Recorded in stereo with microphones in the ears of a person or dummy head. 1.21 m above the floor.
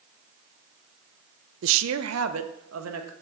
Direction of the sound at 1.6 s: 60° right (ahead or behind).